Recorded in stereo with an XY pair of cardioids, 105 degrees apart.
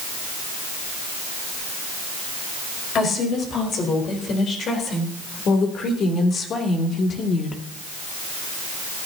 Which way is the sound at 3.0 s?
60° left.